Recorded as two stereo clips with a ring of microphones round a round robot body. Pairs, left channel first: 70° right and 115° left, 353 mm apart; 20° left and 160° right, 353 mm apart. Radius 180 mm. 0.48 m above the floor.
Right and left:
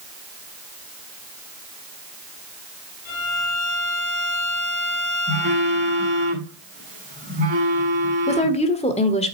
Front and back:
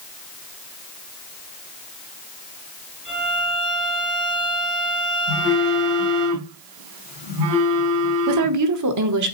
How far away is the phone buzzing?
About 5.5 m.